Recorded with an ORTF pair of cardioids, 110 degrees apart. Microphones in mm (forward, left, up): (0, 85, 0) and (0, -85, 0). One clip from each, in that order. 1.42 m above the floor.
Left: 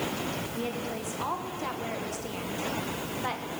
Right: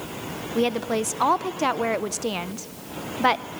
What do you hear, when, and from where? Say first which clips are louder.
0.6 s a woman speaking: right 10 dB; 60° right, 0.8 m